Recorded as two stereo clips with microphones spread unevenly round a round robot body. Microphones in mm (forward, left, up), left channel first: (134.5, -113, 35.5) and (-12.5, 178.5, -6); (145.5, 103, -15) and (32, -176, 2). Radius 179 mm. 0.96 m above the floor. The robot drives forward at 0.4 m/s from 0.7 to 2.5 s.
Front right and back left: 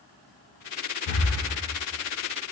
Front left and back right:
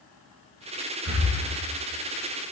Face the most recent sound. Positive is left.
turn(degrees=-80)